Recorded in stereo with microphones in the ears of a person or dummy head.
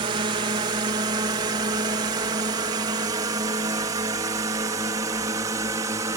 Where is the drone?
25° right (ahead or behind); by 6.2 s 15° right (ahead or behind).